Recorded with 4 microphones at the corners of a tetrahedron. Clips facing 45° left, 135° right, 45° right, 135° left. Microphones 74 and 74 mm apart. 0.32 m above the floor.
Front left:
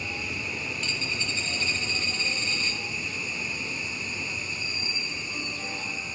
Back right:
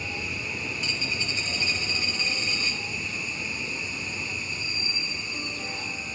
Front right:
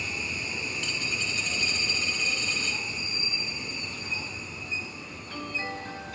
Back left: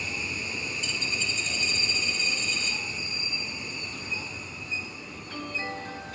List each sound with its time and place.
0.8 s a dropped coin: 60° right, 1.4 m